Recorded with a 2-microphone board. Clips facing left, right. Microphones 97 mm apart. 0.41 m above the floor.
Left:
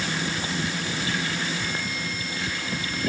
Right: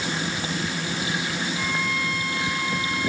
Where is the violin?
70° right (ahead or behind).